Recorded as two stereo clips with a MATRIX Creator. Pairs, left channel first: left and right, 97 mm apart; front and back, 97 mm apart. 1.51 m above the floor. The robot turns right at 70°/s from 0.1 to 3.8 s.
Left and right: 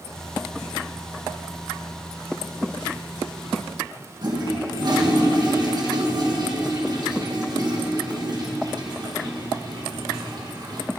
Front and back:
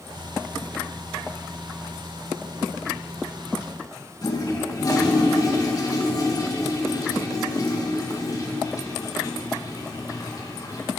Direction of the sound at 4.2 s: 50° right.